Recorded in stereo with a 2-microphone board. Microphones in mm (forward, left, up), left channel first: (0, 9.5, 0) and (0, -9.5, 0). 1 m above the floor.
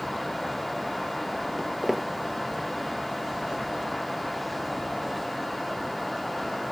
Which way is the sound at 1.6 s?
20° right (ahead or behind).